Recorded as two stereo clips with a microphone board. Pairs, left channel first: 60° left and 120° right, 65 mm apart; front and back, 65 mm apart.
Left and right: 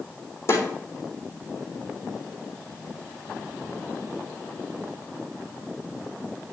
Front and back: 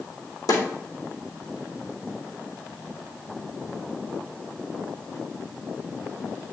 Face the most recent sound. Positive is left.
turn(degrees=10)